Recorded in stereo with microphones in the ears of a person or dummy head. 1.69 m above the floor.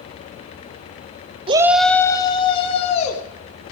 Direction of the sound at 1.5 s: 30° right (ahead or behind).